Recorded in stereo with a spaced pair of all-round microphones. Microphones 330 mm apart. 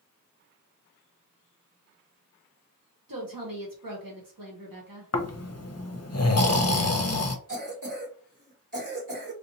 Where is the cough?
65° right (ahead or behind), 1.8 m.